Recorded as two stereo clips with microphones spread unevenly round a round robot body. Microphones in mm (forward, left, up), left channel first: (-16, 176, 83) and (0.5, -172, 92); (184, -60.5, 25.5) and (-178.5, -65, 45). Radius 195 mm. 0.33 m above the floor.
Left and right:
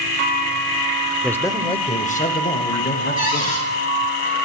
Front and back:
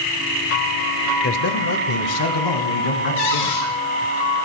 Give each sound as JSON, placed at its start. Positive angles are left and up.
{"t": 1.2, "sound": "a man speaking", "azimuth_deg": 10, "distance_m": 1.2}
{"t": 3.2, "sound": "a cupboard door", "azimuth_deg": 25, "distance_m": 5.0}